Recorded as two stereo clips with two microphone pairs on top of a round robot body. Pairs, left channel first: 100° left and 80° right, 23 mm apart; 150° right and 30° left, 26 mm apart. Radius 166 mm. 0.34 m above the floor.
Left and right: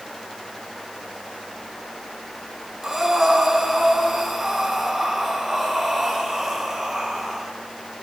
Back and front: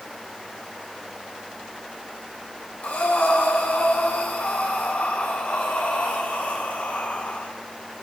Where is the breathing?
160° right, 5 m.